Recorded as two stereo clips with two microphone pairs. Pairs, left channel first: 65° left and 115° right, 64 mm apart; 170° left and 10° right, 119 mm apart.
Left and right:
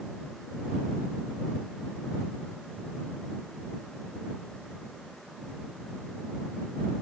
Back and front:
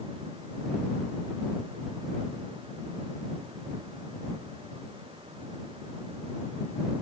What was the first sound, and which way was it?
Only background noise.